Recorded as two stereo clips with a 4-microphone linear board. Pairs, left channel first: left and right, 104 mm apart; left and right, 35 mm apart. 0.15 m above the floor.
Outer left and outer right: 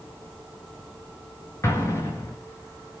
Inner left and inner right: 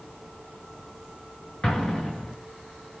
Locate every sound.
1.6 s an explosion: 25° left (ahead or behind), 7.5 m